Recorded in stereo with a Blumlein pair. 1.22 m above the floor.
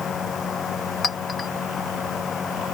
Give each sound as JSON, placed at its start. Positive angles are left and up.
{"t": 0.0, "sound": "a fan", "azimuth_deg": 20}
{"t": 1.0, "sound": "a clink", "azimuth_deg": 15}